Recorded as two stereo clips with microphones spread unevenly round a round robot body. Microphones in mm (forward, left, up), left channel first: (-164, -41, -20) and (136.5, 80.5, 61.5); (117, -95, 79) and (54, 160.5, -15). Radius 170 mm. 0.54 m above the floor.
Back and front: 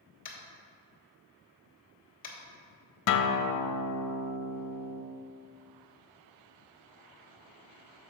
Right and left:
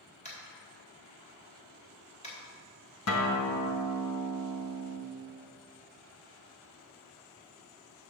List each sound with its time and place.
0.2 s tapping: 155° right, 1.3 m
3.1 s a guitar: 130° right, 0.5 m